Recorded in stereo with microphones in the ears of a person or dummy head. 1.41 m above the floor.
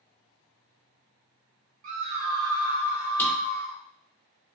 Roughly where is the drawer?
Centre.